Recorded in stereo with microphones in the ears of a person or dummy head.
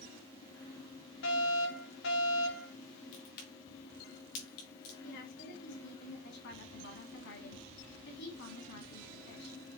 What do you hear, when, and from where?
1.2 s a fire alarm: 65° left (ahead or behind), 3.5 m
3.1 s a crack: 50° left (ahead or behind), 3 m
5.0 s a woman speaking: 60° left (ahead or behind), 2 m